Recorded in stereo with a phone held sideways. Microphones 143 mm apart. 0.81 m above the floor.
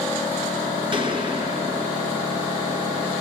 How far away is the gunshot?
About 2.5 m.